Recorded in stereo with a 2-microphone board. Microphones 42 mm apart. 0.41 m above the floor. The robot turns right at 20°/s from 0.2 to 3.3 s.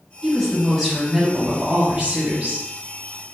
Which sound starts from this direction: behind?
A woman speaking, at 0.2 s.